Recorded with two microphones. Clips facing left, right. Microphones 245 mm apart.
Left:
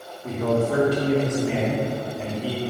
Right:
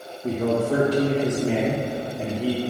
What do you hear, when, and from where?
0.2 s a man speaking: 35° right (ahead or behind), 2 m